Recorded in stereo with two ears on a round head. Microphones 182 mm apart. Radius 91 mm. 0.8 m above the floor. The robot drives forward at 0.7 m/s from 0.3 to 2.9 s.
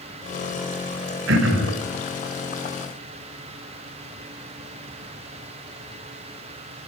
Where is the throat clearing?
65° right (ahead or behind), 4 m; by 1.8 s 70° right (ahead or behind), 4 m.